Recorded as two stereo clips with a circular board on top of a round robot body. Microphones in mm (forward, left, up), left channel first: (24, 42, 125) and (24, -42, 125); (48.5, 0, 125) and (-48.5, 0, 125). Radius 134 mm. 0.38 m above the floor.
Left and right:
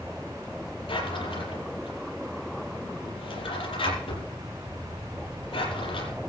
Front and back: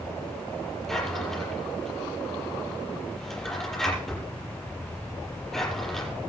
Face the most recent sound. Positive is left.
turn(degrees=85)